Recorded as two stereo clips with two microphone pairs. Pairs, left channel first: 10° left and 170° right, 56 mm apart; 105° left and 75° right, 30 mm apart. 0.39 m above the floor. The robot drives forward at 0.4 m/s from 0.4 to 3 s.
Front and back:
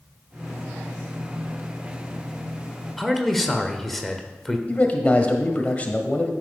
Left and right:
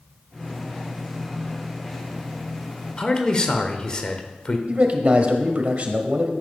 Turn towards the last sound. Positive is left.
turn(degrees=-50)